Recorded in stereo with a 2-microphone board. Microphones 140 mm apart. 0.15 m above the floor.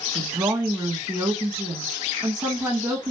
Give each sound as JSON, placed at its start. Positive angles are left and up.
{"t": 0.1, "sound": "a woman speaking", "side_deg": -20, "distance_m": 1.2}